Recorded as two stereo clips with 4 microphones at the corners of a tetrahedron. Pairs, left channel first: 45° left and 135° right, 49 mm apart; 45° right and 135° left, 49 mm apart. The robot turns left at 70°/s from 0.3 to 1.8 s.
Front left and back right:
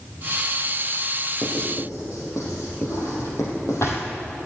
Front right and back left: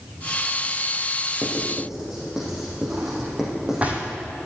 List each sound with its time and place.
1.4 s writing: 80° left, 5 m; by 3.8 s 50° left, 5 m
2.9 s a drawer: 75° left, 2.5 m